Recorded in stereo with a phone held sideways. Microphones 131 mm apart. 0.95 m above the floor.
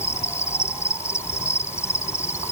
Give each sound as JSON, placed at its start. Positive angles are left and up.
{"t": 0.0, "sound": "an insect", "side_deg": 20}